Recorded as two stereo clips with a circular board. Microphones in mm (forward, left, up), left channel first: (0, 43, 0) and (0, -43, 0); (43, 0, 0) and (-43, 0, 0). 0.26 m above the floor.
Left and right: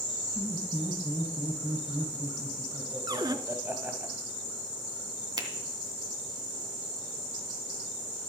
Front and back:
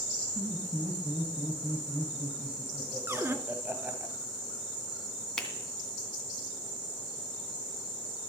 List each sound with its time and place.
0.3 s laughter: 125° right, 1.8 m
3.1 s a cupboard door: 120° right, 1.0 m
5.4 s a finger snap: 80° right, 2.5 m